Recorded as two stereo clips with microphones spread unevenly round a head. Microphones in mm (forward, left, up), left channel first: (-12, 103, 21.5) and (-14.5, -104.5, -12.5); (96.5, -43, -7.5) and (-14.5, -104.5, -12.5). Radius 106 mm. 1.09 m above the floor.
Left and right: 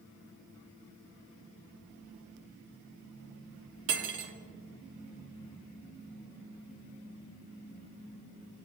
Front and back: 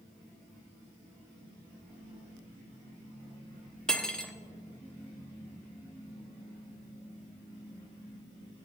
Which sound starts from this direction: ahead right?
Cutlery clinking, at 3.9 s.